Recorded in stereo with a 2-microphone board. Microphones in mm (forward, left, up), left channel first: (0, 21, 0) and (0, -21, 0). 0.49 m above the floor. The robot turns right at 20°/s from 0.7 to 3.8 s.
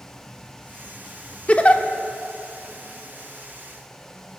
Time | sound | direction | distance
1.5 | a giggle | 30° left (ahead or behind) | 0.8 m